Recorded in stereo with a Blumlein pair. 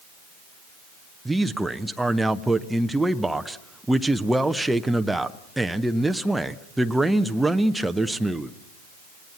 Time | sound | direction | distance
1.2 | a man speaking | 5° right | 0.8 m